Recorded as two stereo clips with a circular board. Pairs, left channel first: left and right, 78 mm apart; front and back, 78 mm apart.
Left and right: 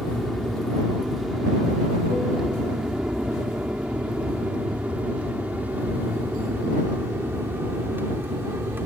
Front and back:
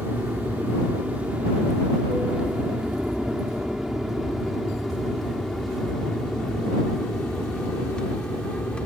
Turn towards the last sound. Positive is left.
turn(degrees=-65)